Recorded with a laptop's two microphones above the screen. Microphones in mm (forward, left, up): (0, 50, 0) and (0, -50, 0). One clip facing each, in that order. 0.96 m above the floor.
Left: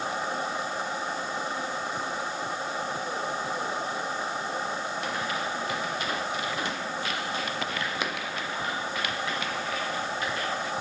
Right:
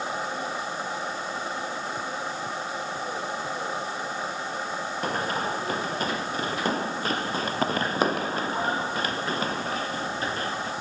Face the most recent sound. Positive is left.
turn(degrees=-35)  # may be behind; listen again after turning